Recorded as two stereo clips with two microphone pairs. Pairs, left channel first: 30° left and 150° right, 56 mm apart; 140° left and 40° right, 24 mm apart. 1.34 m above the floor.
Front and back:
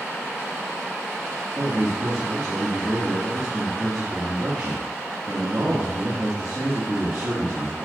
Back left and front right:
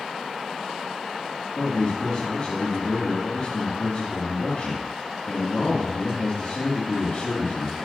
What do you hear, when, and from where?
1.6 s a man speaking: 170° right, 2.5 m